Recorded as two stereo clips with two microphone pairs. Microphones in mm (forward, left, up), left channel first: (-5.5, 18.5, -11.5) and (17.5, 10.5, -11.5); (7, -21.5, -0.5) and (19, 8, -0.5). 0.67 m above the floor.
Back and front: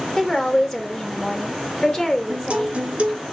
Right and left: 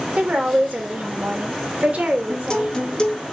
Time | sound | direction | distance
0.2 | a woman speaking | 95° left | 2 m
2.3 | a guitar | 55° right | 1.4 m